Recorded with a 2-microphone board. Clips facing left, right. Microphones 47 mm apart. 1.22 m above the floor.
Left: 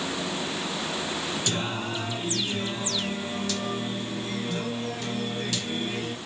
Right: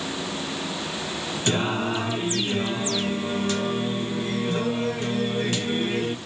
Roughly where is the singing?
Right.